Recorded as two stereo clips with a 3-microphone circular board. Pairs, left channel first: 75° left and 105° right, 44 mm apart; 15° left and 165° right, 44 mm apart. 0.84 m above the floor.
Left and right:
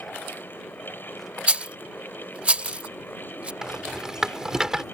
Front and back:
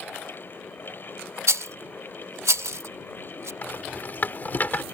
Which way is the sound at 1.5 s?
165° right.